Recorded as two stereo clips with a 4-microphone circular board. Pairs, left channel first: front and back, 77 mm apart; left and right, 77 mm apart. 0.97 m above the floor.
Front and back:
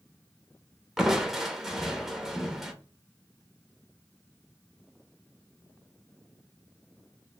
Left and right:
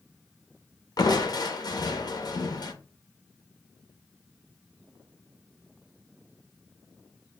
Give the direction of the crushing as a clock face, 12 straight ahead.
9 o'clock.